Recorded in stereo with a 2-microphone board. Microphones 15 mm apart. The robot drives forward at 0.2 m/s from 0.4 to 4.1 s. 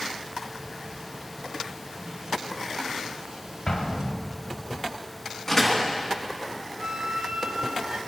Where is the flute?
60° right (ahead or behind), 0.5 m.